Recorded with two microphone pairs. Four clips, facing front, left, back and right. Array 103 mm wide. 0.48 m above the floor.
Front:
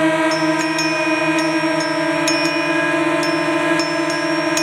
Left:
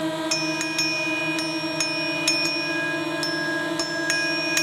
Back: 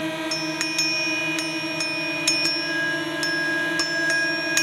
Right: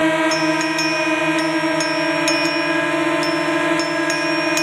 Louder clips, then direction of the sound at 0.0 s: Right 9 dB, front 12 dB; 40° right.